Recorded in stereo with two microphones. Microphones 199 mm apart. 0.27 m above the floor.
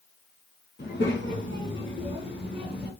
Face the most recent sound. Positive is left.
turn(degrees=55)  # may be behind; listen again after turning